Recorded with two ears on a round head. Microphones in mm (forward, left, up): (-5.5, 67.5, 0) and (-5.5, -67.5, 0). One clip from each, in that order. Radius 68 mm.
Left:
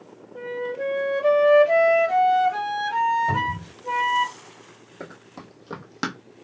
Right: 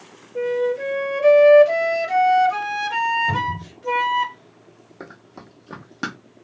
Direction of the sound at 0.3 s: 50° right (ahead or behind).